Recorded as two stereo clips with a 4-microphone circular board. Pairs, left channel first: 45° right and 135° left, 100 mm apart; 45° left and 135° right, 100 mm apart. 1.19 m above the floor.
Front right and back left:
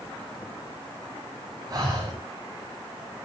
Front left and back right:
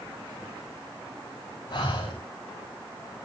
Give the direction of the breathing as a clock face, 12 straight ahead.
9 o'clock.